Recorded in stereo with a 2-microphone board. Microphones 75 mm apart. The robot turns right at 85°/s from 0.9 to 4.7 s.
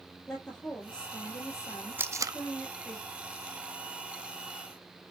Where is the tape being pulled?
25° right (ahead or behind), 0.6 m; by 2.4 s 60° right (ahead or behind), 0.6 m.